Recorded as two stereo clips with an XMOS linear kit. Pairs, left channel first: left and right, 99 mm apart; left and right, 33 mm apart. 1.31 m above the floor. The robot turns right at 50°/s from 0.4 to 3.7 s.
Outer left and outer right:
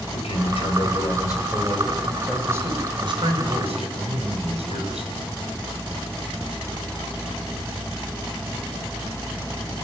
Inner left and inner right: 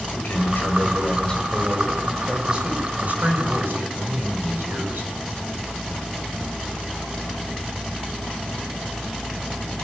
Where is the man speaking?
100° left, 6 m; by 5.1 s 95° right, 6 m.